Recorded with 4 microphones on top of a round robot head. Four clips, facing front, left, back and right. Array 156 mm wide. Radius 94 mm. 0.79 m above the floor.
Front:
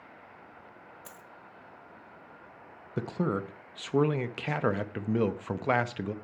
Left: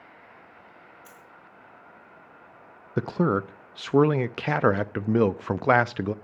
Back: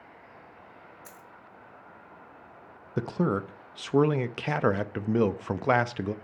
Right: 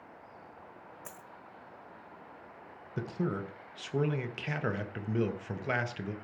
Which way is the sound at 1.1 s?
65° right.